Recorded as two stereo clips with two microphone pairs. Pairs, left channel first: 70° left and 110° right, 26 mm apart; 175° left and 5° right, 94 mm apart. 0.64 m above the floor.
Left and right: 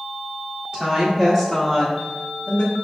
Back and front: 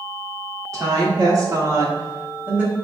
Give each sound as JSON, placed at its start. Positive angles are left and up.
{"t": 0.7, "sound": "a woman speaking", "azimuth_deg": -50, "distance_m": 1.6}